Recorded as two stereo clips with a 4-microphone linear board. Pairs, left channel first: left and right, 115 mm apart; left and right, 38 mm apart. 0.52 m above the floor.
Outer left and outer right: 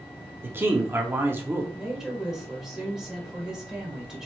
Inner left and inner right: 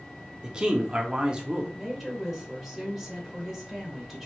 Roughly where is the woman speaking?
Centre.